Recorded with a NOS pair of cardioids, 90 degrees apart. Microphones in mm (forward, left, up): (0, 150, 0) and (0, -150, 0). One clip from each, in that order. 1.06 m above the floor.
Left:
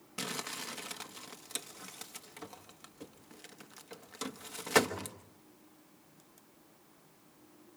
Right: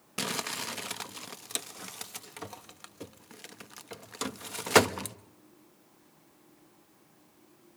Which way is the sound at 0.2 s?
30° right.